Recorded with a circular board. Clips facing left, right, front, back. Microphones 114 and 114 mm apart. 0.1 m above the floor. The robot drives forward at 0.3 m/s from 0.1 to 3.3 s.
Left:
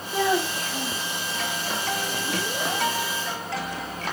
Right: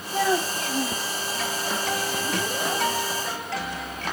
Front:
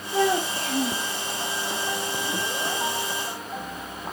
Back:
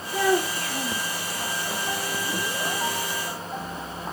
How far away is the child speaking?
About 5 m.